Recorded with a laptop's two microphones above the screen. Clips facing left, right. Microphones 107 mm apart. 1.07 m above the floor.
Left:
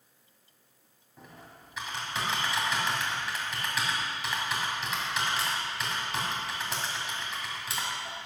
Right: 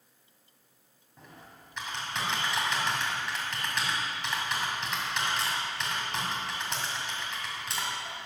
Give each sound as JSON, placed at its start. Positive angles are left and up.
{"t": 1.2, "sound": "typing on a keyboard", "side_deg": 5, "distance_m": 2.0}